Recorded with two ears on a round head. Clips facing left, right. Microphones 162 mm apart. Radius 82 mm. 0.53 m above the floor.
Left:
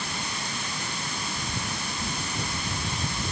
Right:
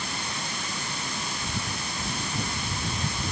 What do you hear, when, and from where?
Only background noise.